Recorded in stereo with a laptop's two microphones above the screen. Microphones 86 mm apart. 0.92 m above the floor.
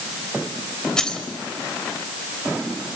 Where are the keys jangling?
10° left (ahead or behind), 3.5 m.